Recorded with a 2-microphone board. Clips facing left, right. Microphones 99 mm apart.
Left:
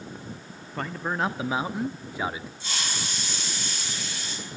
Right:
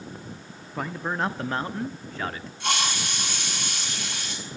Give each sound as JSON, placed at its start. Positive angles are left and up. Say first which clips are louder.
{"t": 0.8, "sound": "a man speaking", "louder": "even", "side_deg": -5, "distance_m": 0.9}
{"t": 2.6, "sound": "a hiss", "louder": "right 9 dB", "side_deg": -60, "distance_m": 6.0}